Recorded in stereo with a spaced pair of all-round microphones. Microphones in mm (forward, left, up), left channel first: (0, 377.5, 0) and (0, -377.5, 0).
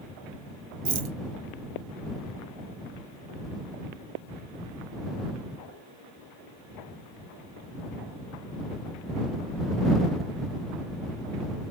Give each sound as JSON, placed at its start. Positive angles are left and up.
{"t": 0.8, "sound": "a rattle", "side_deg": -45}